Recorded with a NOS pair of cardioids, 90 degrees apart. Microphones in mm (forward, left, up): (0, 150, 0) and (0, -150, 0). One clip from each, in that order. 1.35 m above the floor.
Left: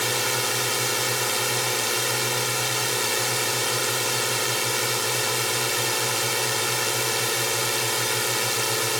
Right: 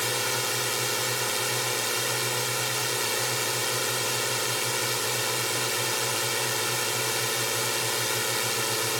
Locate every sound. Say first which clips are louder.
0.0 s a drone: left 3 dB; 25° left